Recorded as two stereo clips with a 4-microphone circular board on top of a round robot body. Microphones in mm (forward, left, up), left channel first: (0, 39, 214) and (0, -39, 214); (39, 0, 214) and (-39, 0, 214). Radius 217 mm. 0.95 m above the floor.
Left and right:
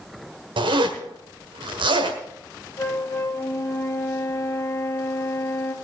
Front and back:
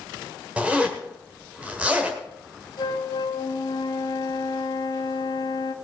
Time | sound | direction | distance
0.6 | a zipper | 105° right | 1.5 m
2.8 | a flute | 35° left | 1.6 m